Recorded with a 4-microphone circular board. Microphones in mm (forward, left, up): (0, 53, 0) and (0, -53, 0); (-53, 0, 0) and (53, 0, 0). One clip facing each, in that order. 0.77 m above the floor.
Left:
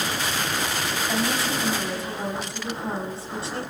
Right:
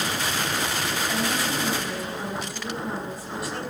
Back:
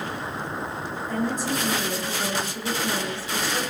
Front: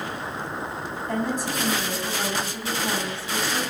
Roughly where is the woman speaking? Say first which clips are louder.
Left 3 dB, even; ahead left.